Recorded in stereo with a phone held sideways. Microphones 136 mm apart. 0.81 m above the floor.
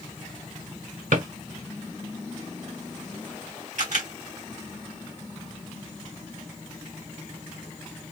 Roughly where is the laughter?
No laughter in this recording.